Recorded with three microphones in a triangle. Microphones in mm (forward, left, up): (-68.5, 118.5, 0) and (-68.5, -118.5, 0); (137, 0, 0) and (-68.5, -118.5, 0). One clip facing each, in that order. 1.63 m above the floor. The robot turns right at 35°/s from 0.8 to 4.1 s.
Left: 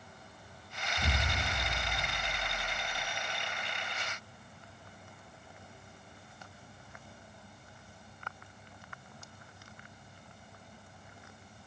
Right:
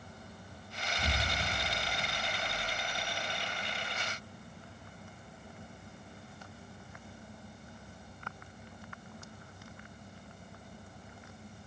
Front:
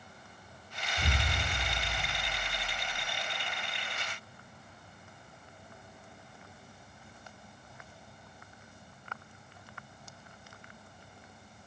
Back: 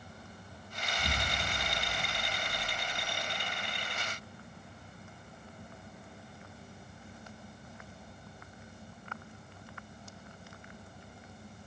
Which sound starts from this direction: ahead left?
An explosion, at 1.0 s.